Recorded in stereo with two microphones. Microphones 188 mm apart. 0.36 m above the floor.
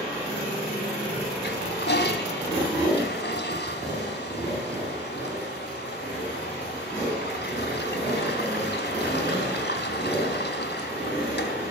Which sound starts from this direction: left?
A toilet flushing, at 1.4 s.